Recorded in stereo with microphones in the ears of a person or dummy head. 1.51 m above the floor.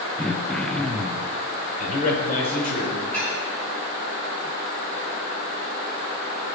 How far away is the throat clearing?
About 0.8 m.